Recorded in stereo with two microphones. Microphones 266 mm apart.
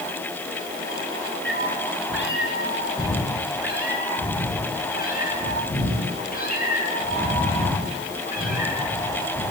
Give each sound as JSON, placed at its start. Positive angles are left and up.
{"t": 1.4, "sound": "a cat meowing", "side_deg": 45, "distance_m": 5.5}